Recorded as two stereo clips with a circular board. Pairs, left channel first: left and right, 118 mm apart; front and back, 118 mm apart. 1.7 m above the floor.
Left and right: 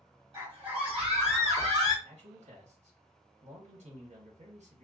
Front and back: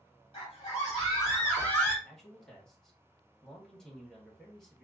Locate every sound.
0.3 s a scream: 40° right, 2 m; by 1.9 s 75° right, 2.5 m
2.0 s a man speaking: 85° right, 1.7 m